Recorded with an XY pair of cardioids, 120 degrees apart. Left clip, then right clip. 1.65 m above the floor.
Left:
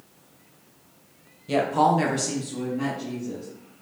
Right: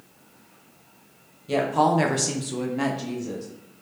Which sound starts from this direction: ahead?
A woman speaking, at 1.5 s.